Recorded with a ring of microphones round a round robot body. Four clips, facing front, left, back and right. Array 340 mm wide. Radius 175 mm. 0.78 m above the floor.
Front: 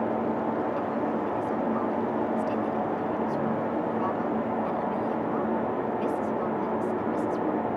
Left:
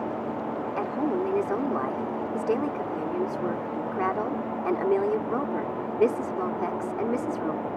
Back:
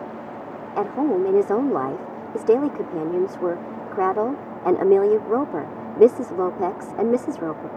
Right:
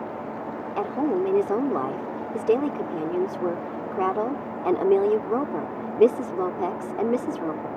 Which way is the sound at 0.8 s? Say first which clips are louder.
Right 4 dB, back 7 dB; 165° right.